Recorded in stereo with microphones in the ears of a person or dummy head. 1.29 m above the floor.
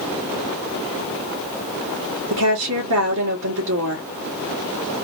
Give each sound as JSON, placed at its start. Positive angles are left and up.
{"t": 2.3, "sound": "a woman speaking", "side_deg": -80, "distance_m": 1.5}